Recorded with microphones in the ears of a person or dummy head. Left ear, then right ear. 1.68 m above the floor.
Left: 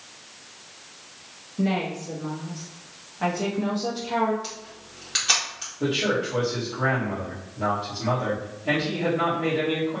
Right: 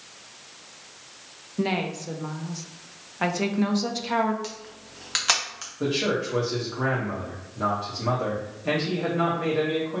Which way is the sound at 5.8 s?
70° right (ahead or behind).